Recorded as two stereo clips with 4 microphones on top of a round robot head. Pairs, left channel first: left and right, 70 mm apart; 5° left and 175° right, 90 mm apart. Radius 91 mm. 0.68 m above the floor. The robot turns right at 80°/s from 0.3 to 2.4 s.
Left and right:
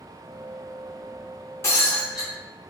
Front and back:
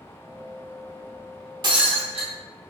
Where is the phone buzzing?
I don't hear a phone buzzing.